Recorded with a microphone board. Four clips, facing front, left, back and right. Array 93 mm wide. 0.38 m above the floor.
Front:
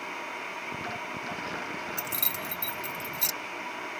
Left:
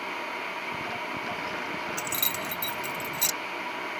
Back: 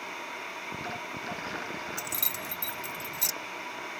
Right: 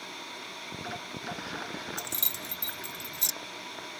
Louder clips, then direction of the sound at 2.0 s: Left 7 dB, front 2 dB; 75° left.